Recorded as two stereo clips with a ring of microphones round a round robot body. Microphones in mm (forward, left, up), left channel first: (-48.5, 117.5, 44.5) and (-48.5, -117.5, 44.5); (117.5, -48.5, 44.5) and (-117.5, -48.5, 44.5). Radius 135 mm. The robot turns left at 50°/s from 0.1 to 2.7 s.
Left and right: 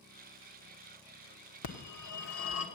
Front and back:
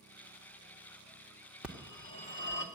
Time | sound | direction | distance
1.6 | a phone ringing | 95° left | 1.4 m